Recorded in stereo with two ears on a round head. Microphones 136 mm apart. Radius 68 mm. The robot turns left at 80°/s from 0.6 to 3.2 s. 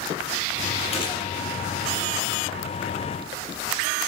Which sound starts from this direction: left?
A gunshot, at 0.9 s.